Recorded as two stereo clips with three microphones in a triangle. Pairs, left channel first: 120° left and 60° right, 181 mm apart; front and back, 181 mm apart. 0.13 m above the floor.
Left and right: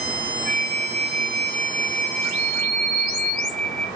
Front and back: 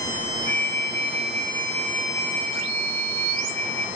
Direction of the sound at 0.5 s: 150° right.